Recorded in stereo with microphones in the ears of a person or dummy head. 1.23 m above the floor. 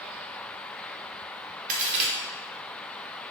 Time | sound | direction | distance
1.7 | a crack | 40° right (ahead or behind) | 0.7 m